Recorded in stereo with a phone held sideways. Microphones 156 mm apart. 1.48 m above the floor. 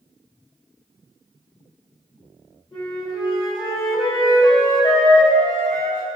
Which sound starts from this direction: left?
A flute, at 2.7 s.